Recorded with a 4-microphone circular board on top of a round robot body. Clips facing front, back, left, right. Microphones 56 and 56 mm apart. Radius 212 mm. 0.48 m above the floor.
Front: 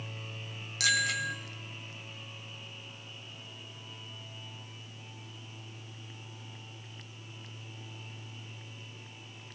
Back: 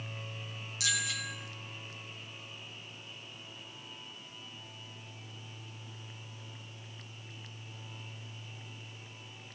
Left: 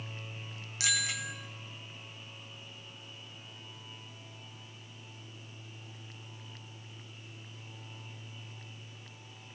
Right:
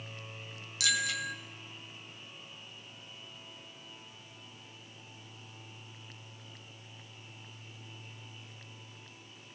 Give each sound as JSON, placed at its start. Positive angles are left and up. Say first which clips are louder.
{"t": 0.8, "sound": "a bicycle bell", "louder": "front 6 dB, right 2 dB", "azimuth_deg": 30, "distance_m": 3.0}